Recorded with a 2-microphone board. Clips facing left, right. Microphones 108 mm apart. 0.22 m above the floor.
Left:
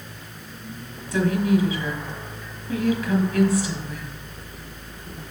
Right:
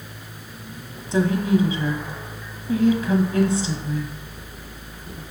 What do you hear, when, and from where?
1.1 s a woman speaking: 25° right (ahead or behind), 1.3 m